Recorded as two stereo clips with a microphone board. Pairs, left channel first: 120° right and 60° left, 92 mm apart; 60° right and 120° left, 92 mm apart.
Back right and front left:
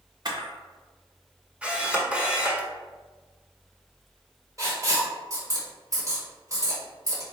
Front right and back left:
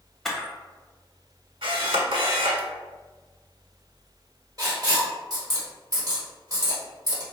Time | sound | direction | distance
0.2 | a camera shutter | 25° left | 1.0 m
1.6 | a camera shutter | 135° left | 0.9 m
4.6 | writing | 95° left | 1.3 m